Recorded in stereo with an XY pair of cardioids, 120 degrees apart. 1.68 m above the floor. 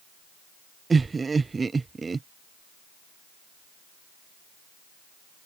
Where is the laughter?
25° right.